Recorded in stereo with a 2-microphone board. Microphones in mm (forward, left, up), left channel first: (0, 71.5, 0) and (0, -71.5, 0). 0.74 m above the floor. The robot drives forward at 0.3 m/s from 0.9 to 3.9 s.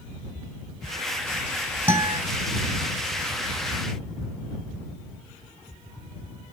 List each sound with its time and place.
1.9 s a guitar: 30° right (ahead or behind), 3 m